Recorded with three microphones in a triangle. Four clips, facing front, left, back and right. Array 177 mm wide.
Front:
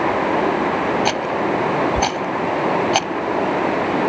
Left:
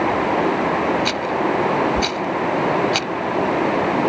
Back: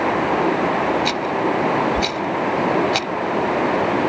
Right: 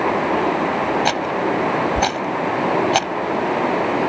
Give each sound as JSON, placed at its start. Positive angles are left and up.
{"t": 1.1, "sound": "a rattle", "azimuth_deg": -55}